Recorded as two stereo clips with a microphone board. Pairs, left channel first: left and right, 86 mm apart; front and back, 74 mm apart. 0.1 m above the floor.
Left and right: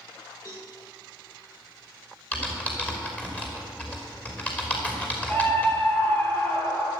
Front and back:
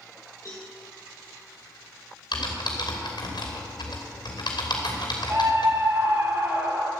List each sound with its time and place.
0.5 s a cowbell: 45° left, 3.5 m
2.3 s typing on a keyboard: 15° left, 4 m
5.3 s a scream: 150° left, 2.5 m